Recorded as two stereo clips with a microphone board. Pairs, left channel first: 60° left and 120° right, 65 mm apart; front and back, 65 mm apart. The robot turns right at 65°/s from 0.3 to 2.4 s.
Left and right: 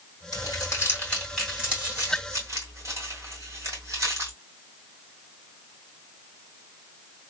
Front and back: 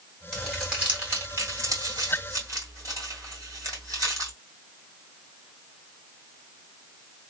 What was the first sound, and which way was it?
Crumpling, 80° left.